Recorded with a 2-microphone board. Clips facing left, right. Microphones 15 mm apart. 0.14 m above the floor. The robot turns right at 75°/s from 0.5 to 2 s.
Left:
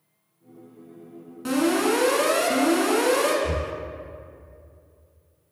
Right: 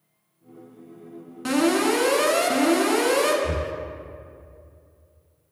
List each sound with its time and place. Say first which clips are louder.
1.4 s an alarm: right 1 dB; 45° right, 1.5 m; by 3.3 s 5° right, 1.5 m
3.4 s breathing: even; 10° left (ahead or behind), 0.5 m